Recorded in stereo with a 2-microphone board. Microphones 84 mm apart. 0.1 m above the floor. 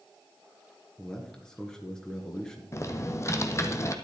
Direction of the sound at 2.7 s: 35° left (ahead or behind).